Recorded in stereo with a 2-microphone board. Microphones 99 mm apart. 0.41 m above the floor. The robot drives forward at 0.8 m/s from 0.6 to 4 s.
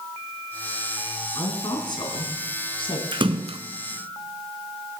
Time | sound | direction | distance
1.4 | a woman speaking | 45° left (ahead or behind) | 3.5 m
3.1 | a splash | 55° right (ahead or behind) | 0.9 m